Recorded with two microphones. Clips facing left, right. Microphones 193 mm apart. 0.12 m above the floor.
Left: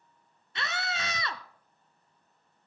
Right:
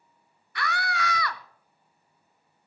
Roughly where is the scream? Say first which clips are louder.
Right 5 dB; left.